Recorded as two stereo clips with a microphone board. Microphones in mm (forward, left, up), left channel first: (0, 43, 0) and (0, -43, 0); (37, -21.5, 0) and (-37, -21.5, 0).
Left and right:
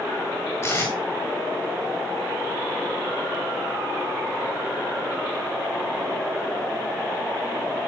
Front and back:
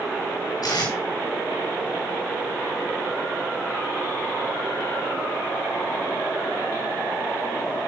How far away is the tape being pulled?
About 5 m.